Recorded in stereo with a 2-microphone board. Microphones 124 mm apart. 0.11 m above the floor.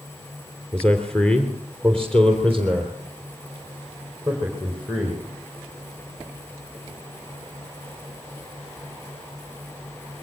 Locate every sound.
0.7 s a man speaking: 10° left (ahead or behind), 2.5 m; by 5.2 s 5° left (ahead or behind), 5.5 m